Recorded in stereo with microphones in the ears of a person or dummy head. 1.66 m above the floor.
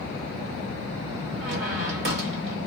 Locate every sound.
1.4 s a squeak: 65° right (ahead or behind), 1.1 m